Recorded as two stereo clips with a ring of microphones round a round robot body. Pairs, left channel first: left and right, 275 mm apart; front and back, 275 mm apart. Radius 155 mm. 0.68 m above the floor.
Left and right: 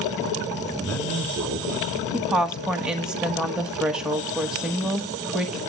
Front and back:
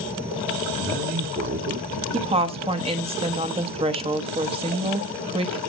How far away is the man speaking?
About 1.6 m.